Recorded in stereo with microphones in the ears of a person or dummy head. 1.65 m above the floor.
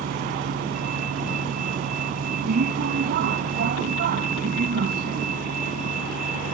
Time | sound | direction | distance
0.0 | a vehicle | 50° right (ahead or behind) | ?